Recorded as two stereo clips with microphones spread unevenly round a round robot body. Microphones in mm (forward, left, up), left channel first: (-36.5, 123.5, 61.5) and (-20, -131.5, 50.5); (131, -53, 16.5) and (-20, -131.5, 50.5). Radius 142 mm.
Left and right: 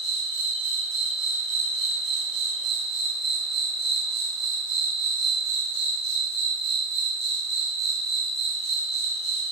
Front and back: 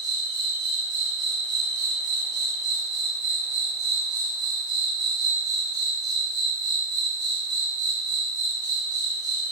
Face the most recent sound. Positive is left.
turn(degrees=-80)